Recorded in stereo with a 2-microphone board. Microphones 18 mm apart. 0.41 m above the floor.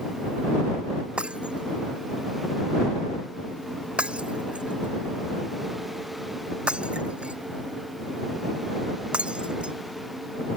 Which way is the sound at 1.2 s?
85° right.